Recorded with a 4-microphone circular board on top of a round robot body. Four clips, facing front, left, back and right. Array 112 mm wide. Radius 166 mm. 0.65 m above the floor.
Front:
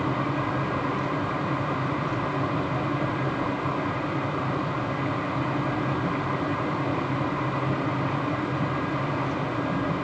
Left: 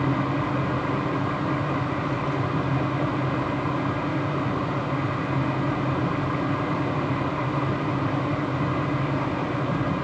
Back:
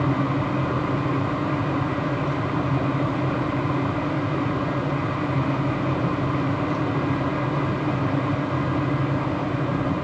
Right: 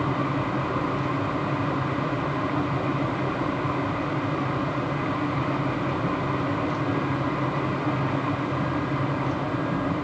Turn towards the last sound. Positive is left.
No sound to turn to.